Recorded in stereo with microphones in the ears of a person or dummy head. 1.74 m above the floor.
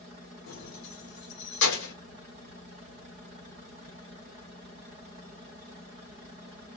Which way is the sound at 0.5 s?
65° left (ahead or behind).